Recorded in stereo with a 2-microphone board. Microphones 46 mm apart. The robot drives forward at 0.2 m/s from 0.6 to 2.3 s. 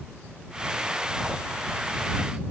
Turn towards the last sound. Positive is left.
No sound to turn to.